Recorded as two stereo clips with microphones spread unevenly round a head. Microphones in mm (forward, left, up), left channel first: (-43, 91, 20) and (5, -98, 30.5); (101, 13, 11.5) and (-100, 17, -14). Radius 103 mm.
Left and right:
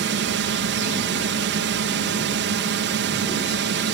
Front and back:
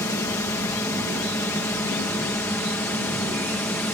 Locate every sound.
0.0 s a drone: 80° right; by 3.9 s 85° right